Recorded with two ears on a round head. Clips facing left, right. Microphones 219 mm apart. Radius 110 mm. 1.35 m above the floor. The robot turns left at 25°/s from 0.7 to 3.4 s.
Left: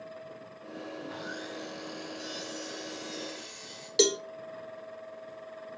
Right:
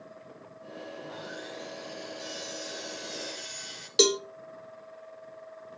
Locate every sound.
1.0 s sawing: 35° left, 2.5 m; by 3.9 s 25° right, 2.5 m
4.0 s a cowbell: 5° right (ahead or behind), 0.6 m